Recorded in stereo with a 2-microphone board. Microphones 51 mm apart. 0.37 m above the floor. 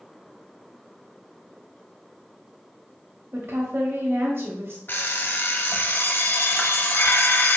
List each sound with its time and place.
3.3 s a woman speaking: 50° right (ahead or behind), 2 m
4.9 s an alarm clock: 45° left (ahead or behind), 1.0 m